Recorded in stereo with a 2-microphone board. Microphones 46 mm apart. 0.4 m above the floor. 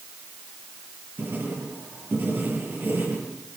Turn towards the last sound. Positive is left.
turn(degrees=-50)  # may be behind; listen again after turning